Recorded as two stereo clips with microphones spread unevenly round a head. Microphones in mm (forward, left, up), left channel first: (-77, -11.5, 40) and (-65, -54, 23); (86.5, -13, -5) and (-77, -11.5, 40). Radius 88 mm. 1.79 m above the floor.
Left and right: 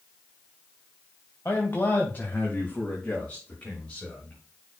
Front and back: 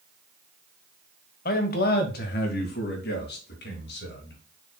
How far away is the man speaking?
About 1.6 m.